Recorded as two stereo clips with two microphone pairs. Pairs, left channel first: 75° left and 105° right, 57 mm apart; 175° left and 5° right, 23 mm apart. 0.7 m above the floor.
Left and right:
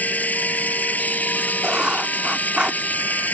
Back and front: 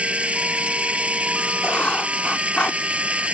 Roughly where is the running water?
Ahead.